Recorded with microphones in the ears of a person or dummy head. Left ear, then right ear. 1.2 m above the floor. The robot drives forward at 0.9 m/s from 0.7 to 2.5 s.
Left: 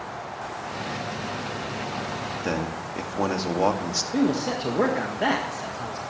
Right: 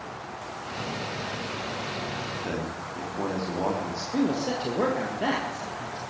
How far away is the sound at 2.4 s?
About 2 m.